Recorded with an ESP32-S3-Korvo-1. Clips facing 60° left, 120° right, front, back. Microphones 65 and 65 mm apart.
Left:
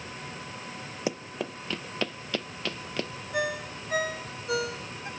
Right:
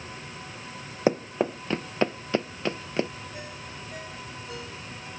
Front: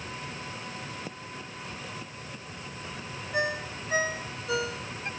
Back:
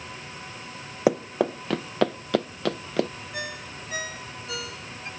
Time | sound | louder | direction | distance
1.1 | running footsteps | right 9 dB, back 18 dB | 170° right | ?
3.3 | a ringtone | left 9 dB, front 9 dB | 65° left | ?